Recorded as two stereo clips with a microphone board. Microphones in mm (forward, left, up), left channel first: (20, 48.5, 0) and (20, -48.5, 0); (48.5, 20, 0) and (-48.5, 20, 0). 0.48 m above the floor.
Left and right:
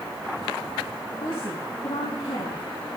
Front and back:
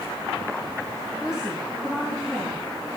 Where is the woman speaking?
100° left, 4.5 m.